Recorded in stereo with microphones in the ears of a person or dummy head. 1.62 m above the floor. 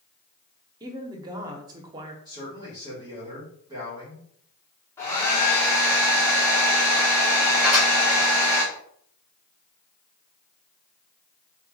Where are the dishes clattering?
10° right (ahead or behind), 1.9 m.